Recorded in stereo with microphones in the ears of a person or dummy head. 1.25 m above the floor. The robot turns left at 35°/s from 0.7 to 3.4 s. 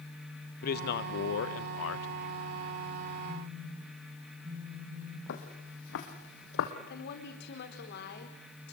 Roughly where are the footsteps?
Left.